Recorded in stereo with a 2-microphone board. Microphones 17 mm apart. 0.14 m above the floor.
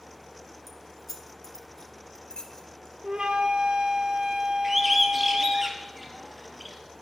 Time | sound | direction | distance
0.7 | keys jangling | centre (ahead or behind) | 1.3 m
3.0 | a flute | 65° right (ahead or behind) | 1.1 m
4.6 | a bird | 10° right (ahead or behind) | 1.5 m